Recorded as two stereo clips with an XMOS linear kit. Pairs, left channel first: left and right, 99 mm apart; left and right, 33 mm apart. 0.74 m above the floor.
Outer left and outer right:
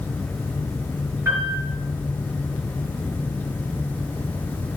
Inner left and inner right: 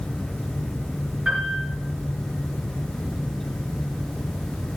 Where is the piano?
25° right (ahead or behind), 4.5 m.